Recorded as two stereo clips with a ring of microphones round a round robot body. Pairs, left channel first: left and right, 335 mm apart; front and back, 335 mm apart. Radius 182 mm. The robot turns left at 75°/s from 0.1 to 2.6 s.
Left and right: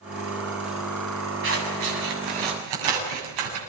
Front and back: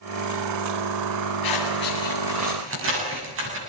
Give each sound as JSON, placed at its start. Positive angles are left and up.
{"t": 1.4, "sound": "scissors", "azimuth_deg": -35, "distance_m": 8.0}